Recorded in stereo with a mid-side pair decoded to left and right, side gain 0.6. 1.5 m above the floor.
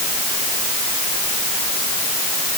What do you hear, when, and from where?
Only background noise.